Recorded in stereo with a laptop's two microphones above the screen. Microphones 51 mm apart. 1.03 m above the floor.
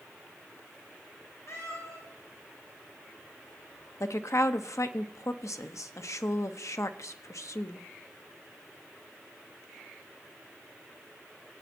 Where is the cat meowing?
80° left, 8 m.